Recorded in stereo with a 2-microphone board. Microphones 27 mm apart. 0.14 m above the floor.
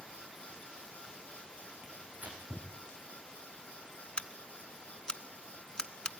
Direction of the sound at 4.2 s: 35° left (ahead or behind).